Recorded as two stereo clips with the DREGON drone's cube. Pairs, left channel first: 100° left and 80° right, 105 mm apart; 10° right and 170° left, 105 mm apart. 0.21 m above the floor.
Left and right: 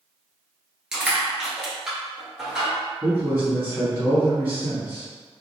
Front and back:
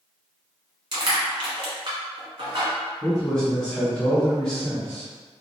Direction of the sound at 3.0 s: 90° right.